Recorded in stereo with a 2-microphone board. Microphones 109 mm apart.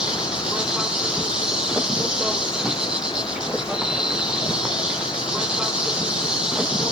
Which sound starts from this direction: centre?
An insect, at 0.0 s.